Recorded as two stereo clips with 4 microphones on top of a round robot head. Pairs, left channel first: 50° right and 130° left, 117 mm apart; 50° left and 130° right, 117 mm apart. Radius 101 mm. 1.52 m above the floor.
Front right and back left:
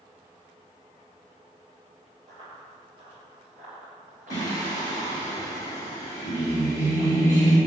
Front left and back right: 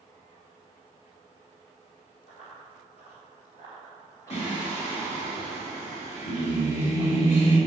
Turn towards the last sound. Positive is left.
turn(degrees=15)